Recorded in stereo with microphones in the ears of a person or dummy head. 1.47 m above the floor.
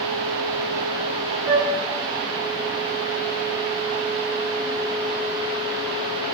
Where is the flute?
20° right (ahead or behind), 2.5 m.